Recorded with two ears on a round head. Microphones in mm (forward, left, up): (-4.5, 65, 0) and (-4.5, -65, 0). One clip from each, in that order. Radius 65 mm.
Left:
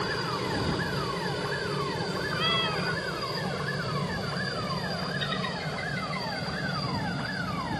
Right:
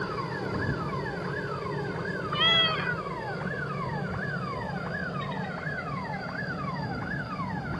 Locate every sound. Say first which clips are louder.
0.0 s a helicopter: left 2 dB; 55° left (ahead or behind); by 7.8 s 65° left (ahead or behind)
2.3 s a cat meowing: right 5 dB; 25° right (ahead or behind)